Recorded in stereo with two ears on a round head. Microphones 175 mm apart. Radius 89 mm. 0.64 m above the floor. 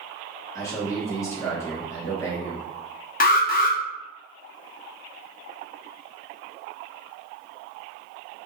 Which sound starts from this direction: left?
An alarm, at 3.2 s.